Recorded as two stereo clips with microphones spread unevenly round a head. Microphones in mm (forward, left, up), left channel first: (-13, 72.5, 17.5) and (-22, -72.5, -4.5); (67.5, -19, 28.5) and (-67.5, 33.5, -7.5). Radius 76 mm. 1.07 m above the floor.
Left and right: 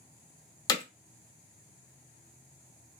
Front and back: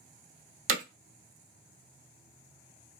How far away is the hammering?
About 0.8 m.